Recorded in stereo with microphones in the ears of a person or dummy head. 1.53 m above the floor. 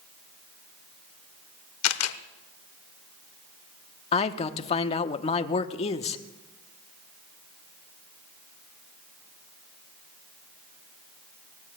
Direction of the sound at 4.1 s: 35° left (ahead or behind).